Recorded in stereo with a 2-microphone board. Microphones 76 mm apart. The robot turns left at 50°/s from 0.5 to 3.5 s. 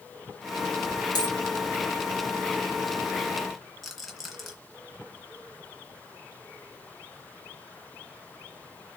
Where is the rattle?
Centre (ahead or behind), 2 m.